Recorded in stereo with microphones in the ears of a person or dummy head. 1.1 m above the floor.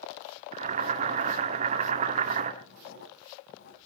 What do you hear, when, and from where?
0.5 s boiling: 45° right (ahead or behind), 2 m
2.6 s writing: 55° left (ahead or behind), 2.5 m